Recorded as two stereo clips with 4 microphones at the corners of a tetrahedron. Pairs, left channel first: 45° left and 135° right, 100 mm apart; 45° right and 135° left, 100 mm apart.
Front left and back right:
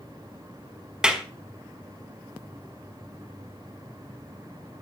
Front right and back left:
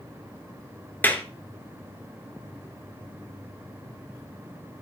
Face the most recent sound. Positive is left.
turn(degrees=-65)